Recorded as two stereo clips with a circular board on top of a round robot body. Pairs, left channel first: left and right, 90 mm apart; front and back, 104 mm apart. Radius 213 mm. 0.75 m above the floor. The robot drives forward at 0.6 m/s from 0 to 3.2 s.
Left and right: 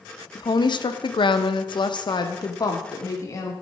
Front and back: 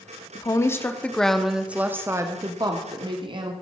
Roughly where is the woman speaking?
Ahead left.